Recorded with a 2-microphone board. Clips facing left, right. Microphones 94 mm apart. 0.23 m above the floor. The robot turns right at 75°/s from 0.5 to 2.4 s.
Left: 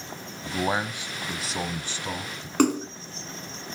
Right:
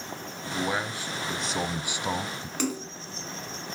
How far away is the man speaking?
About 1.1 m.